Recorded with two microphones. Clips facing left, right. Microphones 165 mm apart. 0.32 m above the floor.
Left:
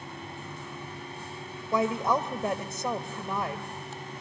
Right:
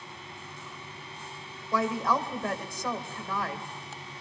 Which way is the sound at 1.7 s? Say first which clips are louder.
Left 2 dB; 25° left (ahead or behind).